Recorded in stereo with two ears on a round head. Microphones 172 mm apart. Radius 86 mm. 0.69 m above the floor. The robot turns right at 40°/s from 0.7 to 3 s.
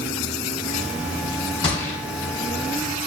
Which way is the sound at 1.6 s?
25° left (ahead or behind).